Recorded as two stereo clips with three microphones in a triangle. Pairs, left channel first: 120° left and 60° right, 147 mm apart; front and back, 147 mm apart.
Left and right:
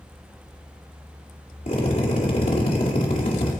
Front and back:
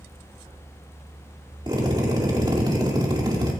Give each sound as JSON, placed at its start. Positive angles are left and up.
{"t": 1.7, "sound": "a drill", "azimuth_deg": 125, "distance_m": 2.5}